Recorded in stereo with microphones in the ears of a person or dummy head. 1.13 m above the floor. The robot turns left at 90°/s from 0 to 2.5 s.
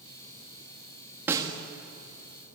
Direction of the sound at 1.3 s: 10° right (ahead or behind).